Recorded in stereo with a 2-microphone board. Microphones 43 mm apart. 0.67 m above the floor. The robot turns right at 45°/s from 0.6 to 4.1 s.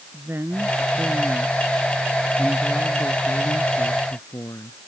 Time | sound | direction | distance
0.1 | a woman speaking | 65° right | ?